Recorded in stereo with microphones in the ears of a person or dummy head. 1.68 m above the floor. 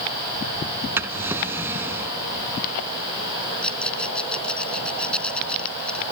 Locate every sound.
1.0 s a drawer: 10° right (ahead or behind)
3.6 s a rattle: 10° left (ahead or behind)